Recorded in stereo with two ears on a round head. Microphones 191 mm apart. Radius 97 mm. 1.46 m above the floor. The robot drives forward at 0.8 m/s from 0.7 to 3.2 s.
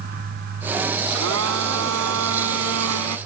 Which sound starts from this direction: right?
A blender, at 1.1 s.